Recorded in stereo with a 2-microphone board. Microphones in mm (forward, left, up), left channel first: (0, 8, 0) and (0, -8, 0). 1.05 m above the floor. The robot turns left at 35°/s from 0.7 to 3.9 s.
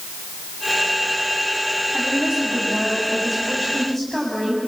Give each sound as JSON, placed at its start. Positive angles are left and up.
{"t": 1.9, "sound": "a woman speaking", "azimuth_deg": -125, "distance_m": 6.5}